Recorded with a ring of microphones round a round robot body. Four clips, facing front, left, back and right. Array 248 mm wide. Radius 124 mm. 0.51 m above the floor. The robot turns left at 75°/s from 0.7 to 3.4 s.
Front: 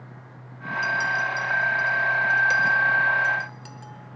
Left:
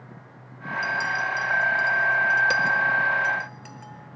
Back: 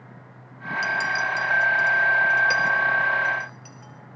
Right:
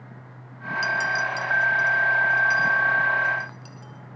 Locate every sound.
0.8 s a clink: 120° right, 1.0 m; by 4.2 s 45° left, 1.0 m